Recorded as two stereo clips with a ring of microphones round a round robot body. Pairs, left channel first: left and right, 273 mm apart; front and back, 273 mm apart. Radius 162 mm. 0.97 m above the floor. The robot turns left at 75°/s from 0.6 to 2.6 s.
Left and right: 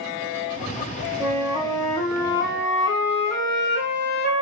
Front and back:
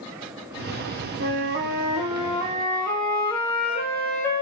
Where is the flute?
175° right, 0.8 m; by 4.4 s 80° left, 0.8 m.